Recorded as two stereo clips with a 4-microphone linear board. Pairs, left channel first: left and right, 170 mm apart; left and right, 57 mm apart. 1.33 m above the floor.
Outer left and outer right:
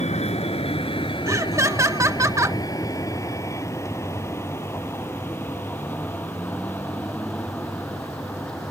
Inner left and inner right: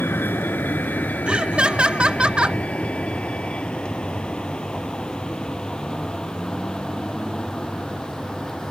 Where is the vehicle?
40° left (ahead or behind); by 8.7 s 5° left (ahead or behind).